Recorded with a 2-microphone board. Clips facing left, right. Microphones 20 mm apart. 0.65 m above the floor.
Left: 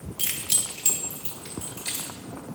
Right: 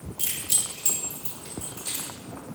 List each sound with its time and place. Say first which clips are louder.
0.2 s keys jangling: left 1 dB; 40° left (ahead or behind), 0.7 m; by 2.1 s 35° left (ahead or behind), 2 m